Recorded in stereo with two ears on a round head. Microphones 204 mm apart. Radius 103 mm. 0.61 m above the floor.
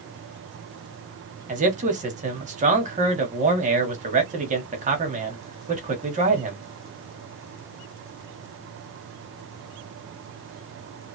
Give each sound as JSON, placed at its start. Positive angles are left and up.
{"t": 1.5, "sound": "a man speaking", "side_deg": -35, "distance_m": 1.0}